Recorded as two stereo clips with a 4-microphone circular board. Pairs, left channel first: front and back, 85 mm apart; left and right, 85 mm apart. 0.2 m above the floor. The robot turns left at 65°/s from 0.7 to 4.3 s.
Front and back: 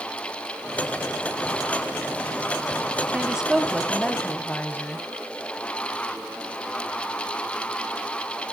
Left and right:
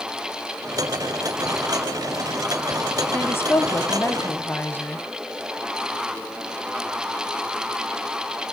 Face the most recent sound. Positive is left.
turn(degrees=50)